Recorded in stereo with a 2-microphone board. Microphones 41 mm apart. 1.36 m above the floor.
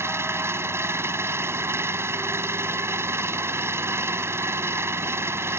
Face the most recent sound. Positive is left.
turn(degrees=-90)